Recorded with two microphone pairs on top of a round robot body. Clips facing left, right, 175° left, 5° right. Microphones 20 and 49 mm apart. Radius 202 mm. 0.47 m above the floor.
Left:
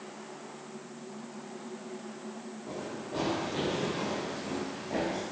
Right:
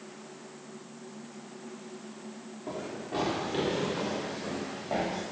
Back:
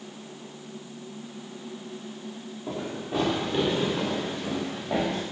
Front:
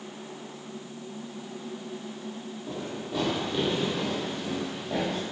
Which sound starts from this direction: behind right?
Running footsteps, at 2.7 s.